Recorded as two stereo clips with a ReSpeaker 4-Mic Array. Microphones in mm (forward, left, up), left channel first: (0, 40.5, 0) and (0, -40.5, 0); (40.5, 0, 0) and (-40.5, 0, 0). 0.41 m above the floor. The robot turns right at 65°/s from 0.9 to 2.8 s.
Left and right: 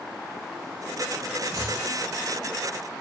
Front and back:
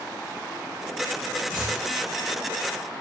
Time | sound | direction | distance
1.5 | chopping | 125° right | 1.5 m